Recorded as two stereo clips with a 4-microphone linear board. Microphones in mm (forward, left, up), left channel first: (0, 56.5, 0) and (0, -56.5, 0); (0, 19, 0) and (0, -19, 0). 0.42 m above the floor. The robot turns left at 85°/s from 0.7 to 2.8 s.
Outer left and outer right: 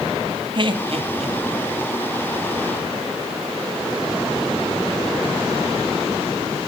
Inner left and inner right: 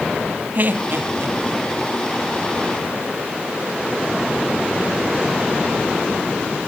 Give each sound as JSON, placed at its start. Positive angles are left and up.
{"t": 0.6, "sound": "laughter", "side_deg": -45, "distance_m": 3.5}